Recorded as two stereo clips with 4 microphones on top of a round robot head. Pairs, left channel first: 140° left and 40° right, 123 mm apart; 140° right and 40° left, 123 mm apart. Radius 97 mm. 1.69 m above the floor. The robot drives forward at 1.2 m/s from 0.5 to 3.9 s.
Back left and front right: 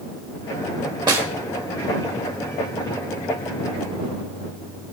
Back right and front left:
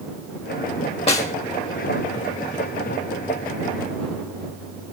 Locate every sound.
1.1 s a snare drum: 100° right, 0.8 m; by 1.3 s 115° right, 0.9 m